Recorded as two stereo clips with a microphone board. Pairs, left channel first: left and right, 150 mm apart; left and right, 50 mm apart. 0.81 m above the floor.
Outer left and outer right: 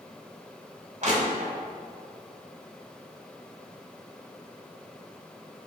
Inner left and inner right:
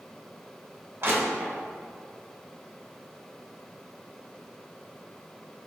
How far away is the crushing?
About 1.3 m.